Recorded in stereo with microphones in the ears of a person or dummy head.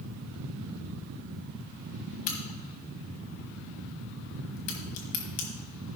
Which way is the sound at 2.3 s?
45° left (ahead or behind).